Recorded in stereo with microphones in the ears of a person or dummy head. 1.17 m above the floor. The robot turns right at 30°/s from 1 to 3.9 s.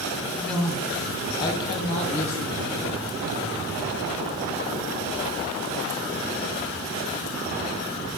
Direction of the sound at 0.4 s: 5° left.